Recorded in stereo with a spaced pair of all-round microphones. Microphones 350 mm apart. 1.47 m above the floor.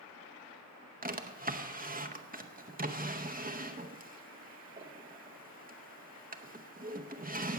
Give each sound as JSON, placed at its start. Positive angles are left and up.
{"t": 1.0, "sound": "a drawer", "side_deg": -25, "distance_m": 0.8}